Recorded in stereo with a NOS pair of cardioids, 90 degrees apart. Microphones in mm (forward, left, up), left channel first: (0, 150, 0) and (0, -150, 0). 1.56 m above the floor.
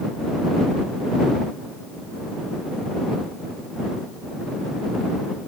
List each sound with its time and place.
Only background noise.